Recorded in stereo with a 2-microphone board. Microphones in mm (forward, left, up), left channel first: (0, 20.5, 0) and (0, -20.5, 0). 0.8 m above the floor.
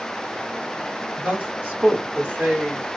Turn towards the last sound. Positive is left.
turn(degrees=-40)  # may be behind; listen again after turning